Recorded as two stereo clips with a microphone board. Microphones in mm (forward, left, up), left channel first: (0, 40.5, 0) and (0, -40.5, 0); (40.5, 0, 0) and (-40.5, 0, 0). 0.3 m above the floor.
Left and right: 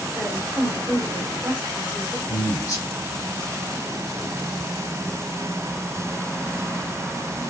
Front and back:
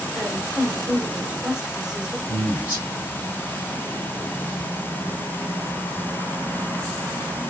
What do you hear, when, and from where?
0.1 s a woman speaking: 110° right, 1.2 m
2.3 s a man speaking: 110° left, 1.2 m